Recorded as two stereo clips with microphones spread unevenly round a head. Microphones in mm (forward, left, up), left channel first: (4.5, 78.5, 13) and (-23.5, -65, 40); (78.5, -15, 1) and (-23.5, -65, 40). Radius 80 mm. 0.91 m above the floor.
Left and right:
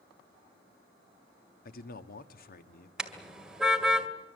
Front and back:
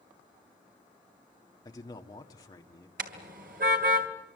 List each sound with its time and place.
1.6 s a man speaking: 80° left, 1.7 m
3.0 s a car horn: 175° left, 2 m